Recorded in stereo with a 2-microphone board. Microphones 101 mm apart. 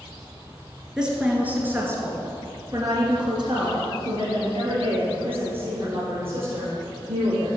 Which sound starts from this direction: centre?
A woman speaking, at 1.0 s.